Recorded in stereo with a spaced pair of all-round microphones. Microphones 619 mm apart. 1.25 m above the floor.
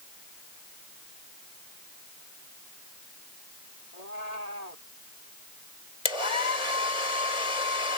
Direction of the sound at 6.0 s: 80° left.